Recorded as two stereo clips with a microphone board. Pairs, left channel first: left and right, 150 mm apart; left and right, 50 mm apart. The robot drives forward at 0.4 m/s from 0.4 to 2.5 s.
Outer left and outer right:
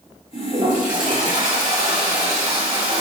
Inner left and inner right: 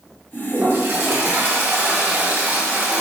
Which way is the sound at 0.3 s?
60° right (ahead or behind).